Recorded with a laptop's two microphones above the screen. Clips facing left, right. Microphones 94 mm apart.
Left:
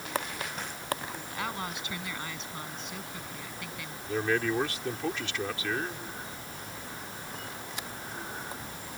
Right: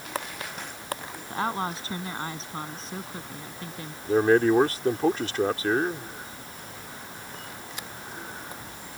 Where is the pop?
I don't hear a pop.